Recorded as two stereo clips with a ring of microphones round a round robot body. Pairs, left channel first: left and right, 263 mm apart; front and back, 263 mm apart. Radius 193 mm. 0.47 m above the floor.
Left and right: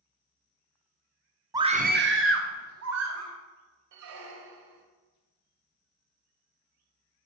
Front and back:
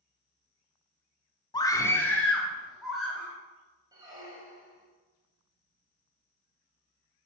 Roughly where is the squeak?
Right.